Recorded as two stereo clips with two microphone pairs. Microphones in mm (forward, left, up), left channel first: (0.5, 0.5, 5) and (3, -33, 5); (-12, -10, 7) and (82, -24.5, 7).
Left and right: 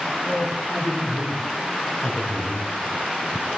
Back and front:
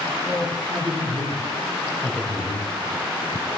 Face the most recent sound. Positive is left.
turn(degrees=40)